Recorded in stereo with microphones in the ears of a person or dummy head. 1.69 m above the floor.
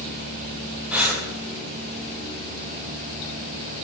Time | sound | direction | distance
0.9 | breathing | 5° right (ahead or behind) | 0.7 m